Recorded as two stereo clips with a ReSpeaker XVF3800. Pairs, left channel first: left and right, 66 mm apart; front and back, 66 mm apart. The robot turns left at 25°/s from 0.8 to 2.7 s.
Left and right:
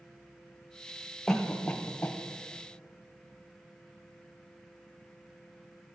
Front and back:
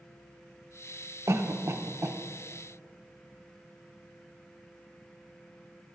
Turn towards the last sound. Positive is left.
turn(degrees=135)